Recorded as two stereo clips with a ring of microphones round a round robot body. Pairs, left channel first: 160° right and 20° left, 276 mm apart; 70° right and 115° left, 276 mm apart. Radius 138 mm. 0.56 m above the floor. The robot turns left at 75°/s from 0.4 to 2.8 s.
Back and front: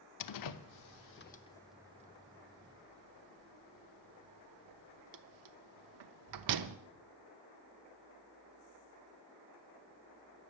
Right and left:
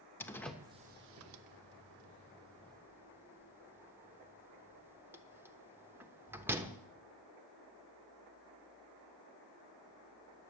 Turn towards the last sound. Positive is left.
turn(degrees=30)